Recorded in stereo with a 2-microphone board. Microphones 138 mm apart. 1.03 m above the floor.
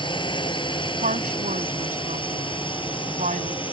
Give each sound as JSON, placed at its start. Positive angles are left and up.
{"t": 0.0, "sound": "a drone", "side_deg": 35}
{"t": 1.0, "sound": "a woman speaking", "side_deg": -65}